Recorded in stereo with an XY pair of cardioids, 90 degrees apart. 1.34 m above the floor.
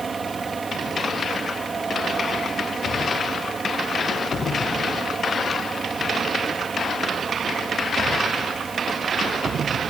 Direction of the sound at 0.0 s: 35° right.